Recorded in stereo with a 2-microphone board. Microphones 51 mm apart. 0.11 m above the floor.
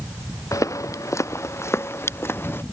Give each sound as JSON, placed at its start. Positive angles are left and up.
{"t": 0.5, "sound": "footsteps", "side_deg": 90}